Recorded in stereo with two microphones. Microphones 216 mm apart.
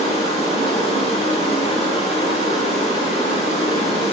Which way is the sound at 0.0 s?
35° left (ahead or behind).